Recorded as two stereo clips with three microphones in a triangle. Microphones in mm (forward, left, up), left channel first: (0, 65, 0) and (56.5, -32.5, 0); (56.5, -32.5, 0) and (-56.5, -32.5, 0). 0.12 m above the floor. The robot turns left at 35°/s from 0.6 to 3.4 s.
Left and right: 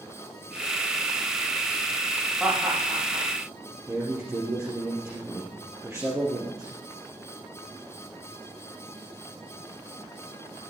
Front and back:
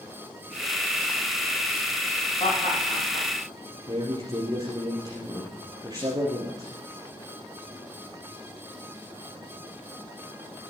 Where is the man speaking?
125° right, 3 m.